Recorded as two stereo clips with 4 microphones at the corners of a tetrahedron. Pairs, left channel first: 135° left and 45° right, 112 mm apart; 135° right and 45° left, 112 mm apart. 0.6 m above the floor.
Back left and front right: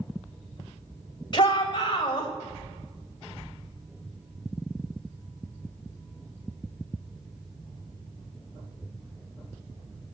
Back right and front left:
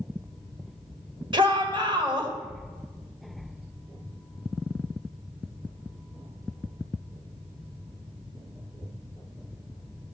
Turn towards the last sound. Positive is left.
turn(degrees=90)